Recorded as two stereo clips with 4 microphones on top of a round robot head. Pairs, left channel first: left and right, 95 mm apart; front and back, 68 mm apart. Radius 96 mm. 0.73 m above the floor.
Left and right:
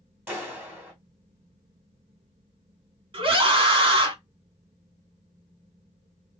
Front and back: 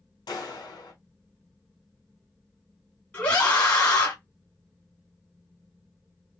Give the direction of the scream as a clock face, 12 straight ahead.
2 o'clock.